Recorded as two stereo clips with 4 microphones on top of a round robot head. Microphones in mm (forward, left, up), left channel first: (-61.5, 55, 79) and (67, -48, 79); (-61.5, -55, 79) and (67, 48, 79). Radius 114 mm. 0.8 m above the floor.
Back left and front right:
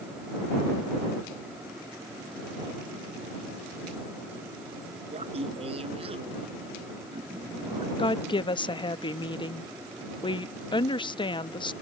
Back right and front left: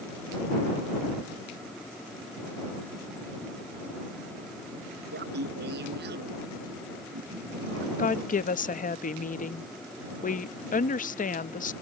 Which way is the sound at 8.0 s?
160° right.